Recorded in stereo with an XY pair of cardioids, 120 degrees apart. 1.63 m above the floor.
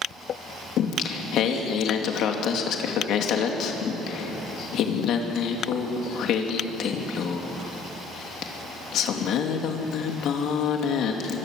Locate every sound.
0.8 s singing: 65° left, 2.5 m